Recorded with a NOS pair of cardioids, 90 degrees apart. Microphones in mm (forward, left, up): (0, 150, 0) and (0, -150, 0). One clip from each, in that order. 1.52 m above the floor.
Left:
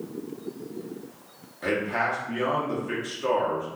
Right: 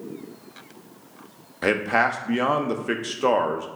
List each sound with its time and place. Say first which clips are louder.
1.6 s a man speaking: right 5 dB; 50° right, 0.6 m